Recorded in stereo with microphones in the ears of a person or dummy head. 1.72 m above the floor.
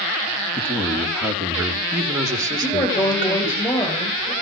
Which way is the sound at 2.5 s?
20° left (ahead or behind).